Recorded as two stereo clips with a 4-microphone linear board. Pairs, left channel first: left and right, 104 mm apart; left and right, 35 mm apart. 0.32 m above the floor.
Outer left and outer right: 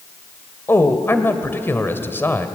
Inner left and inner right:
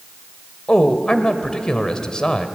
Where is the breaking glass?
No breaking glass in this recording.